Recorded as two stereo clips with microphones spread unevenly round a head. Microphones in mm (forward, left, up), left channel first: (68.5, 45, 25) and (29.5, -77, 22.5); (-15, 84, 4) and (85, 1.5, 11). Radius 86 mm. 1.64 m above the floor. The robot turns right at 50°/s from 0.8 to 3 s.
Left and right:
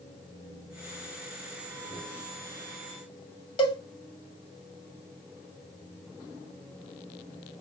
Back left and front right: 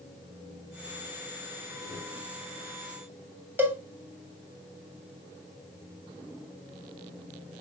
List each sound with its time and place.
3.6 s a cowbell: 30° left, 1.7 m